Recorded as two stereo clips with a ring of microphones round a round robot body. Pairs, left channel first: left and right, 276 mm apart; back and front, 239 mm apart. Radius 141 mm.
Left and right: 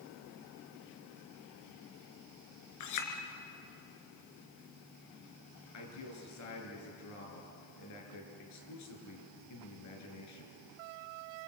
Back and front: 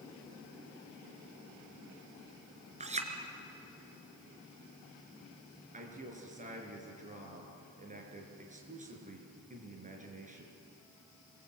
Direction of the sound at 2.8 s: 65° left.